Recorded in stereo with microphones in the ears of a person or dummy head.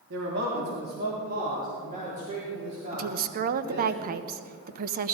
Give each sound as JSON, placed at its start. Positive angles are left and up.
{"t": 0.1, "sound": "a man speaking", "side_deg": -70, "distance_m": 3.0}
{"t": 2.9, "sound": "a woman speaking", "side_deg": -50, "distance_m": 0.8}